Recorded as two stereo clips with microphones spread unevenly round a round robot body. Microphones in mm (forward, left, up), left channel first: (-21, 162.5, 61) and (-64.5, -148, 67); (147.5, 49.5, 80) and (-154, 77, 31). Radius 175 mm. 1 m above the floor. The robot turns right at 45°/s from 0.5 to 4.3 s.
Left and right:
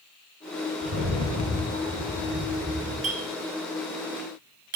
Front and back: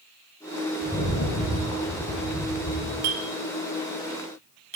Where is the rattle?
85° right, 2.5 m; by 2.9 s 10° left, 2.5 m.